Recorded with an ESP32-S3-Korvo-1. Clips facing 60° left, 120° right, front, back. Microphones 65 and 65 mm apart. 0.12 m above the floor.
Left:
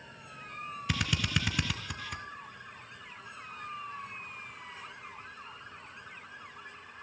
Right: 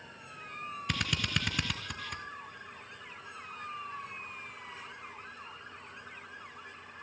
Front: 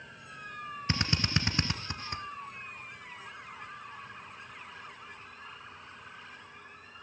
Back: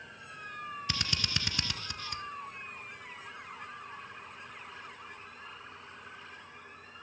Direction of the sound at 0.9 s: 30° right.